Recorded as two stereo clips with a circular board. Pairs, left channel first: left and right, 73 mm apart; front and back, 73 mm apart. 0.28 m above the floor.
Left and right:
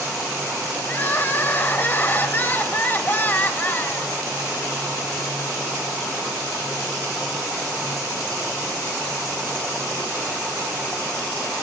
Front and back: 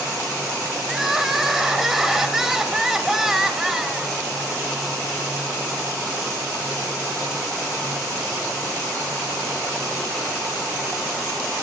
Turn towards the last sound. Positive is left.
turn(degrees=105)